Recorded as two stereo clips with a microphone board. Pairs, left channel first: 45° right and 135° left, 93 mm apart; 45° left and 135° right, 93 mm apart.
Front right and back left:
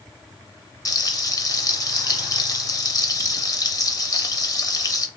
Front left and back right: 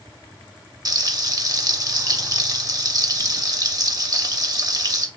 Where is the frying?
90° right, 0.6 m.